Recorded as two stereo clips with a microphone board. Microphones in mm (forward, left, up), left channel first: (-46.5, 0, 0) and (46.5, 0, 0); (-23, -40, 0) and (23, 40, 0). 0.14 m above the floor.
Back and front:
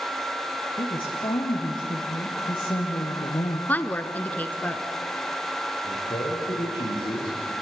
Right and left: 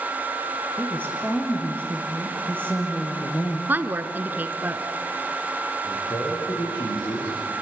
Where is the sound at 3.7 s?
120° left, 1.4 m.